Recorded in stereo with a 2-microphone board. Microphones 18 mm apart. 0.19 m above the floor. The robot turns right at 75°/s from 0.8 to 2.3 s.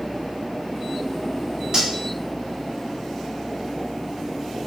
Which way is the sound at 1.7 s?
35° right (ahead or behind).